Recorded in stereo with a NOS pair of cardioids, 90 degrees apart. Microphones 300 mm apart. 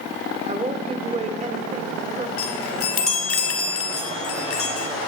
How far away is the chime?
About 3.5 m.